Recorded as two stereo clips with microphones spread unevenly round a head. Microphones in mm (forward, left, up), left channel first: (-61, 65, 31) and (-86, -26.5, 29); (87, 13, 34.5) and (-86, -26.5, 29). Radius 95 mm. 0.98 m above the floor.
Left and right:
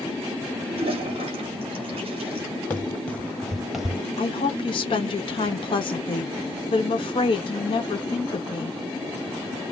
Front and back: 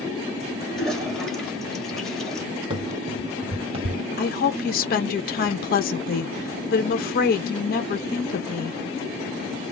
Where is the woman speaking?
45° left, 0.9 m.